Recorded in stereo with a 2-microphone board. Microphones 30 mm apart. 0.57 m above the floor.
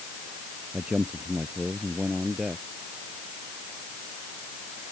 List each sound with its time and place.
0.7 s a man speaking: 40° right (ahead or behind); by 2.6 s 35° right (ahead or behind)